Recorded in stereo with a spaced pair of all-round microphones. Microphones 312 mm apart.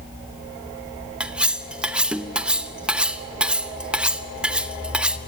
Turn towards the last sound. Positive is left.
turn(degrees=-5)  # may be behind; listen again after turning